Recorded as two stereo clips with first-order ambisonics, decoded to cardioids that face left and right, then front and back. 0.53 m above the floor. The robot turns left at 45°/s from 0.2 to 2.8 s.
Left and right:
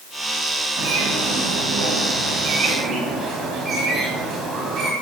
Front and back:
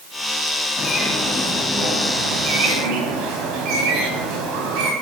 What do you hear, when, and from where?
0.8 s a bird: 60° right, 3.5 m; by 4.9 s 150° right, 3.5 m